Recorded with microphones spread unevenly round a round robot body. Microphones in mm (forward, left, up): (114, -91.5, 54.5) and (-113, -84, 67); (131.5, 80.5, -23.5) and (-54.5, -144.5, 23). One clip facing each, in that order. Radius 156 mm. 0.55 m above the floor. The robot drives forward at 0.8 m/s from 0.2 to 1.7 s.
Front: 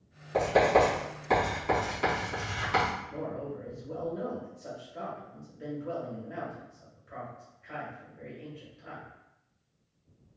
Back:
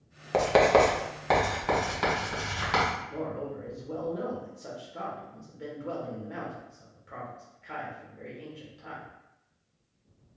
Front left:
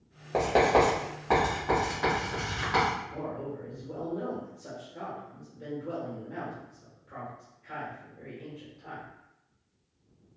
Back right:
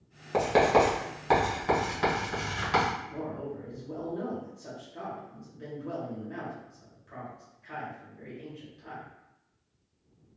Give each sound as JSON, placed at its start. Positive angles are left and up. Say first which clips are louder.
{"t": 0.3, "sound": "writing", "louder": "back 2 dB, even", "azimuth_deg": 155, "distance_m": 0.6}
{"t": 3.1, "sound": "a man speaking", "louder": "back 2 dB, even", "azimuth_deg": 160, "distance_m": 1.0}